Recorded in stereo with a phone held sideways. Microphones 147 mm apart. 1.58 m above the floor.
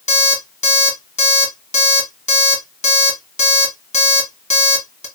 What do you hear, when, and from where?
0.1 s an alarm clock: 55° left (ahead or behind), 1.7 m